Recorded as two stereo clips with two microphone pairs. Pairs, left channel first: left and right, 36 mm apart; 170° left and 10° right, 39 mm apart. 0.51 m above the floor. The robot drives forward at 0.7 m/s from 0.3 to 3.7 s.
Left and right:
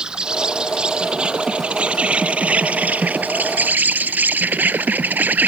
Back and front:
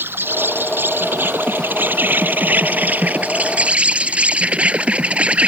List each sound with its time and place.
0.0 s an insect: 25° right; by 5.5 s 65° right